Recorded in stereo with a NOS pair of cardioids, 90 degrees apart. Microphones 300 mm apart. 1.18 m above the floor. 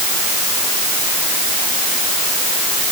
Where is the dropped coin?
I don't hear a dropped coin.